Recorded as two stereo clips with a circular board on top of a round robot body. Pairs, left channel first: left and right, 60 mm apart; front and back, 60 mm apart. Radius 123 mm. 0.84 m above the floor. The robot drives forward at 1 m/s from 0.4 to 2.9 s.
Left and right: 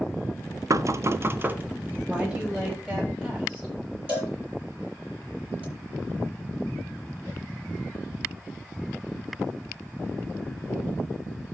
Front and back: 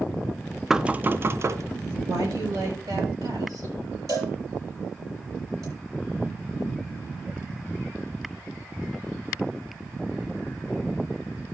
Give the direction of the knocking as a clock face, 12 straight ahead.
3 o'clock.